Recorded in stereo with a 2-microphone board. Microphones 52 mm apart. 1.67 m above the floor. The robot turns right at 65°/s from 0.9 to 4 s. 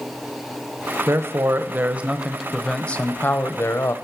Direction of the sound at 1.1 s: 95° right.